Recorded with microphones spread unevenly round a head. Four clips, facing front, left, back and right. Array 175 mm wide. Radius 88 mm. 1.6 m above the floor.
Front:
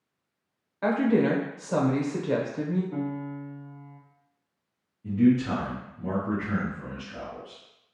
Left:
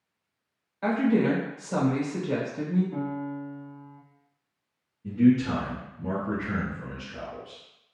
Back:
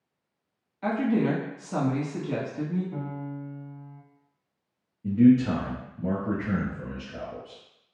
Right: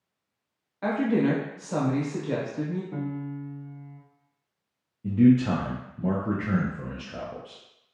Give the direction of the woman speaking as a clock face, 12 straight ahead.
12 o'clock.